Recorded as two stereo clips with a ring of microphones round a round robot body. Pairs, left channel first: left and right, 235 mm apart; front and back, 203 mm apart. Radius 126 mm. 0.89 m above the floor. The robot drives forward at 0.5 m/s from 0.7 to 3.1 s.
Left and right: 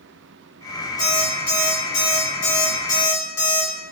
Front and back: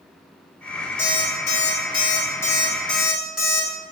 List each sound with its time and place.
1.0 s an alarm clock: 50° left, 1.6 m; by 3.7 s 90° left, 1.3 m